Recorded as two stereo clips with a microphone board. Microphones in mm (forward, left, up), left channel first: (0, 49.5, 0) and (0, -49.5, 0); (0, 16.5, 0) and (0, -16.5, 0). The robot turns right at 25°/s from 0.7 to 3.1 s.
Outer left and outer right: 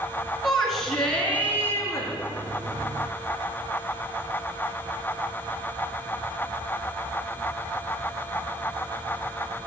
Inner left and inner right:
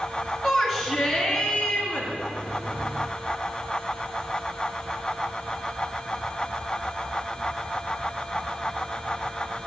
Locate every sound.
0.4 s a shout: straight ahead, 3 m; by 2.1 s 35° left, 3 m